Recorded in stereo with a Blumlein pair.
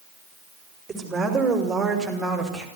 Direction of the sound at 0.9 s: 10° right.